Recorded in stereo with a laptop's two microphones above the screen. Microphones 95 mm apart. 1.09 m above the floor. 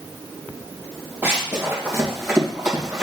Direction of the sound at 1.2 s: 25° right (ahead or behind).